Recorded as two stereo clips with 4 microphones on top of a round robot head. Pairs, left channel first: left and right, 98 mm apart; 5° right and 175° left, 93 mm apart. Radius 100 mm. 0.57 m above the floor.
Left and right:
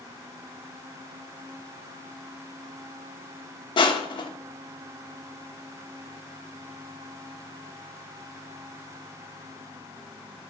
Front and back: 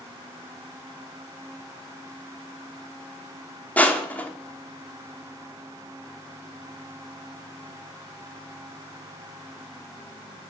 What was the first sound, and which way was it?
Crushing, 65° left.